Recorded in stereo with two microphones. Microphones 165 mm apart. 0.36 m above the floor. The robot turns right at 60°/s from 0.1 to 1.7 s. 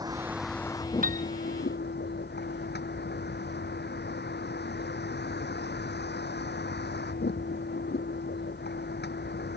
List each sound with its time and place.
0.0 s a vehicle: 20° right; by 9.6 s 75° left
1.0 s a piano: 55° right (ahead or behind); by 1.3 s 35° right (ahead or behind)